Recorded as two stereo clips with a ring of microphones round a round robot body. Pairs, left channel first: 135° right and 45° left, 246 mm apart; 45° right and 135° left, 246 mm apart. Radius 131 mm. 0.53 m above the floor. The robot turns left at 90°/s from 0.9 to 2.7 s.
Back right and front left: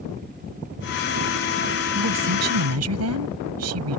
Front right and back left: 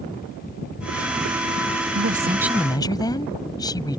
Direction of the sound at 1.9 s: 95° left.